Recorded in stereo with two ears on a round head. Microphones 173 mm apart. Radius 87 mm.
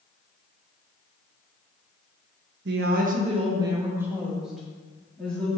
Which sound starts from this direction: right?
A woman speaking, at 2.6 s.